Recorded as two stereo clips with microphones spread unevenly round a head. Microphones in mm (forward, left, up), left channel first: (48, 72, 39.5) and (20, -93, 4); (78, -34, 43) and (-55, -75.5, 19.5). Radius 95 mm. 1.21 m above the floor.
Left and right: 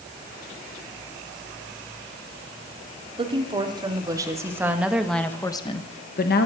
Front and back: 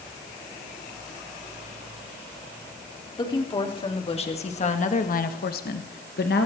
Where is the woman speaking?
40° right, 3.5 m; by 6.5 s 55° left, 1.6 m.